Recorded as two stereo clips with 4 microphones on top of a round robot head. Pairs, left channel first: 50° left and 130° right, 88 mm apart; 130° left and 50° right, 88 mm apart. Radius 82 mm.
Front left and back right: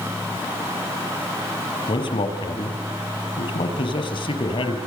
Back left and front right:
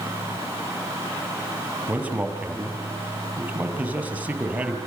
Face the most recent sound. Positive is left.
turn(degrees=20)